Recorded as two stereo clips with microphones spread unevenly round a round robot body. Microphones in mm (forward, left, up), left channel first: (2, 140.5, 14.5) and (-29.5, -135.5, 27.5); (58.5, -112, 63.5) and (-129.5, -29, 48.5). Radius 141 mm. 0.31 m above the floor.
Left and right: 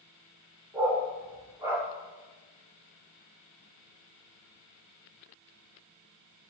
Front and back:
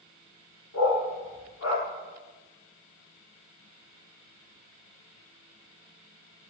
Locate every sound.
0.7 s a dog barking: 15° right, 7 m